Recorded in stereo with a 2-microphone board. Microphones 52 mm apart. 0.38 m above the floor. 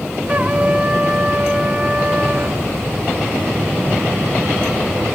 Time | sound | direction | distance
0.3 | a trumpet | 25° right (ahead or behind) | 1.5 m